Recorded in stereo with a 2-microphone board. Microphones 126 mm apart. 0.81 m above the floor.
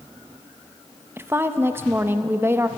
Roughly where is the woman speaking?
Centre.